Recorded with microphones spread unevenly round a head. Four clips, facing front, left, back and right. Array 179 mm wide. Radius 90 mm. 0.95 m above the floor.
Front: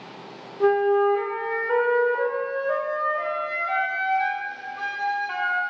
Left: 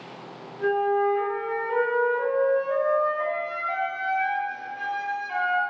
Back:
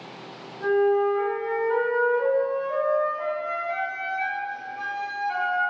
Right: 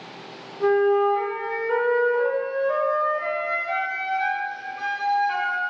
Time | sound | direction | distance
0.6 | a flute | 10° right | 0.9 m